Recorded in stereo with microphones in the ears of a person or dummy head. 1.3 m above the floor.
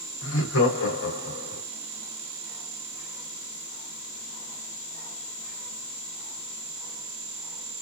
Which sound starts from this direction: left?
Laughter, at 0.2 s.